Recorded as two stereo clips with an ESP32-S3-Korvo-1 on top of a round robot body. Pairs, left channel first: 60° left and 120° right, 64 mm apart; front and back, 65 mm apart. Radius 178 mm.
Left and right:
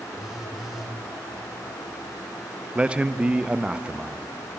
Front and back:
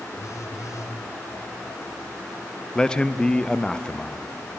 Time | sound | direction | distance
0.1 | a phone buzzing | 35° right | 1.3 m
2.8 | a man speaking | 65° right | 0.6 m